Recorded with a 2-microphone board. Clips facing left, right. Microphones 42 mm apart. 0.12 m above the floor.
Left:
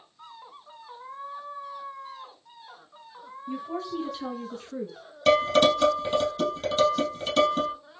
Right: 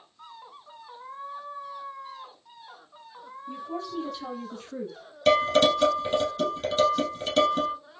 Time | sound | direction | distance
3.5 | a woman speaking | 45° left (ahead or behind) | 1.5 m
5.3 | dishes clattering | centre (ahead or behind) | 2.5 m